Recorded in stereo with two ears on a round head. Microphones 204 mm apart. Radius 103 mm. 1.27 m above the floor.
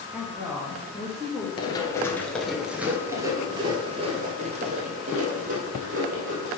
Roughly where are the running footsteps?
Centre.